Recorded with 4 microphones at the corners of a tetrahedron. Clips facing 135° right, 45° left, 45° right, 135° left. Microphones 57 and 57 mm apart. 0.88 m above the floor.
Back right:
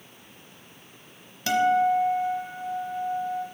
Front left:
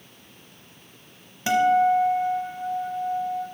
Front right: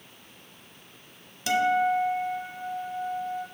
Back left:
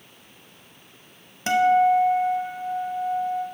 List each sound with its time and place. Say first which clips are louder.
1.5 s a guitar: front left 2 dB, back left 6 dB; 105° left, 0.9 m